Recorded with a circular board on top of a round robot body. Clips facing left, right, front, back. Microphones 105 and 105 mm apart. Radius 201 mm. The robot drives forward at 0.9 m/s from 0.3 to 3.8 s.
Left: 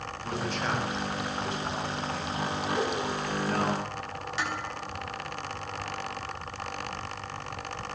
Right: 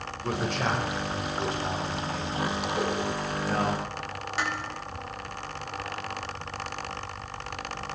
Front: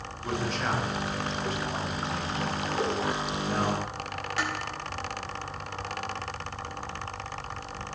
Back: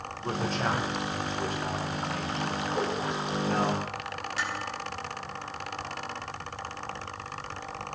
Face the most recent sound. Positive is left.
turn(degrees=-40)